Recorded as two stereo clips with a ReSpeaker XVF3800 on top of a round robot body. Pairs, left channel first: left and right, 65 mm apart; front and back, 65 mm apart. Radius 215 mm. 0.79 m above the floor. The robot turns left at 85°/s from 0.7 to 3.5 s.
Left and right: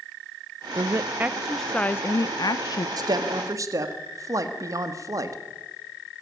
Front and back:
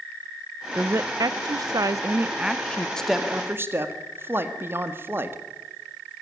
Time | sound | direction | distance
0.8 | a woman speaking | 110° right | 0.6 m
3.0 | a woman speaking | 80° right | 1.9 m